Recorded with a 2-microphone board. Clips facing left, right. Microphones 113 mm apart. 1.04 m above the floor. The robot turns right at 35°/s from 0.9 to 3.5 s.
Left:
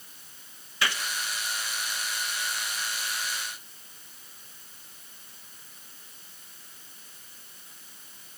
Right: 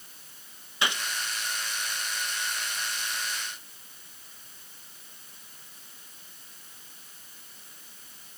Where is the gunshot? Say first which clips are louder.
Even; 20° right (ahead or behind), 0.9 m; by 1.0 s 25° right (ahead or behind), 0.9 m.